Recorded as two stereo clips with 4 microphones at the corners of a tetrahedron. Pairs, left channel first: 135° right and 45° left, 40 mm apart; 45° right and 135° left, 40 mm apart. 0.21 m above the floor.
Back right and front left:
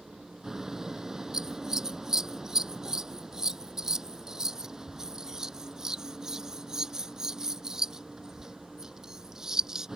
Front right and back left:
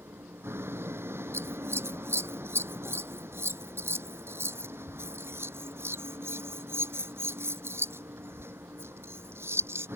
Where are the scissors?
120° left.